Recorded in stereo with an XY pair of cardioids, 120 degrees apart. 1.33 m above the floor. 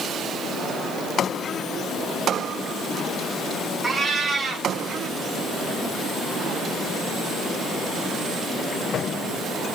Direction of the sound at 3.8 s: 30° right.